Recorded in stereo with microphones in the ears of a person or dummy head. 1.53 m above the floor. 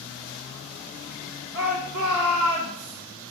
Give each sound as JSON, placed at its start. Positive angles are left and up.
{"t": 1.5, "sound": "a shout", "side_deg": -70, "distance_m": 1.5}